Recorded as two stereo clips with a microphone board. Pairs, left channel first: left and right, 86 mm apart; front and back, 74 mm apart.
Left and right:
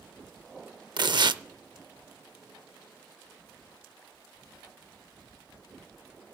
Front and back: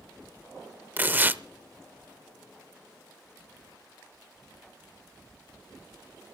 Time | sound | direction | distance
1.0 | tearing paper | 115° right | 0.6 m